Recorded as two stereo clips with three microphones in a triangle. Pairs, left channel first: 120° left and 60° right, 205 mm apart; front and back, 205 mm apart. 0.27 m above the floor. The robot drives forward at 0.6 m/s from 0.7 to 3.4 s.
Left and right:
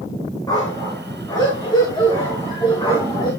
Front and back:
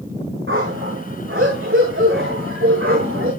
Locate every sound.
0.5 s a dog barking: 170° right, 6.5 m